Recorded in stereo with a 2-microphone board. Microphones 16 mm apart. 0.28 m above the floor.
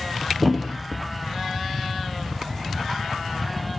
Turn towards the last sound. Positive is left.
turn(degrees=-5)  # may be behind; listen again after turning